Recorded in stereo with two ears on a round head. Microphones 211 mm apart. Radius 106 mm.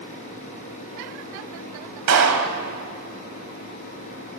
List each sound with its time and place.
2.1 s a clap: 80° right, 3 m